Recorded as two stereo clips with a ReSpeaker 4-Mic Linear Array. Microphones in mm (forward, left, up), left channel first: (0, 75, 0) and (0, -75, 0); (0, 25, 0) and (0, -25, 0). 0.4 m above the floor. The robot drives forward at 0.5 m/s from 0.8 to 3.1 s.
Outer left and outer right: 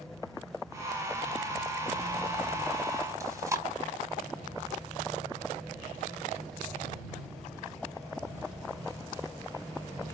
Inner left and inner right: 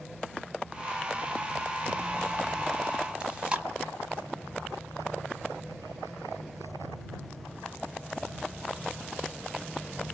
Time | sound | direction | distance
3.2 | chewing | 20° right (ahead or behind) | 0.9 m